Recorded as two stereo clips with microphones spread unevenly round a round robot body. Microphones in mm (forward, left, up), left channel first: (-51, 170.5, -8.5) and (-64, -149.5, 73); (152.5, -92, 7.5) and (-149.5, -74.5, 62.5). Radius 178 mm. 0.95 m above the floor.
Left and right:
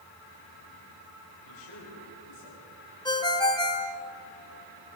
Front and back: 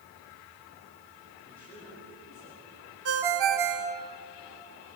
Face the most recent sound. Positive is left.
turn(degrees=165)